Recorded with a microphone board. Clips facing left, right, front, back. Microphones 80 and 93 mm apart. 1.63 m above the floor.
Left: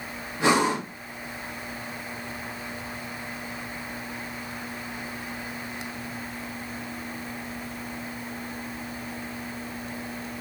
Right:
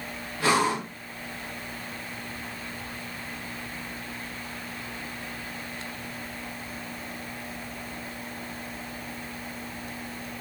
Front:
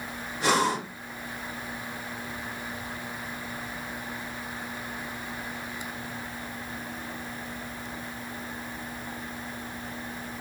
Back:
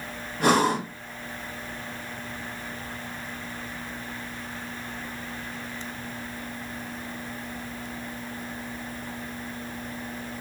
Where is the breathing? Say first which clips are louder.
Left 2 dB, back 4 dB; 155° left, 1.2 m.